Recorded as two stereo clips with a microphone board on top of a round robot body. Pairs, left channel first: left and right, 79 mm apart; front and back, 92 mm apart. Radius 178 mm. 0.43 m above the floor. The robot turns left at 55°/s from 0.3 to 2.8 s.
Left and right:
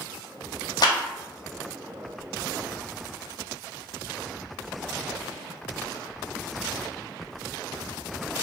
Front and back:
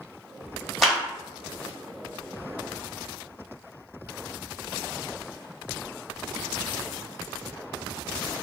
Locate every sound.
0.8 s a clap: 90° left, 1.5 m; by 1.0 s 80° left, 1.5 m